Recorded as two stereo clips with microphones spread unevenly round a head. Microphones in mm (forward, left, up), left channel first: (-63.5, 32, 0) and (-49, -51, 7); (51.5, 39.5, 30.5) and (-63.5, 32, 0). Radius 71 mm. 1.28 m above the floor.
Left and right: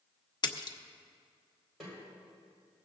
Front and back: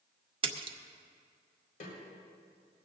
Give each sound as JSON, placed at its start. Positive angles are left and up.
{"t": 0.4, "sound": "a splash", "azimuth_deg": 135, "distance_m": 0.9}
{"t": 1.8, "sound": "a snare drum", "azimuth_deg": 10, "distance_m": 4.0}